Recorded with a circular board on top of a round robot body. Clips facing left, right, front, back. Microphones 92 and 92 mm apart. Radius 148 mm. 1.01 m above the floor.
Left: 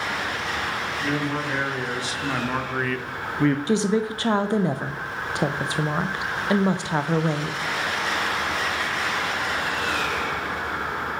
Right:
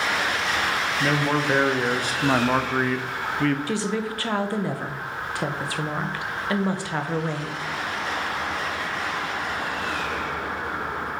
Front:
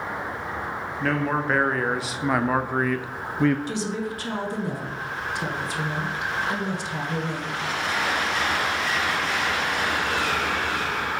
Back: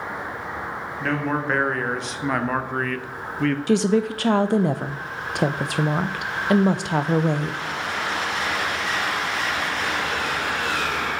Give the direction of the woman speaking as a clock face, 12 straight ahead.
7 o'clock.